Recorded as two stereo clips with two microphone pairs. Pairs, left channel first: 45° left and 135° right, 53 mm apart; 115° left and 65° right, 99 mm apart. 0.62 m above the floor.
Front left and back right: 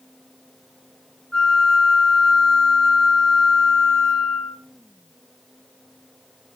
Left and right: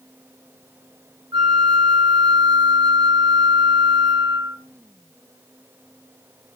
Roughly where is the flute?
Ahead right.